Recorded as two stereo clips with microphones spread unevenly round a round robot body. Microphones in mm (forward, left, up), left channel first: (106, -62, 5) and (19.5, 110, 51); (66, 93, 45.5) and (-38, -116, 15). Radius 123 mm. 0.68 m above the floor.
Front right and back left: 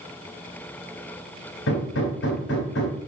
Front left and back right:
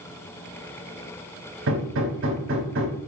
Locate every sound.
1.7 s hammering: 90° right, 3 m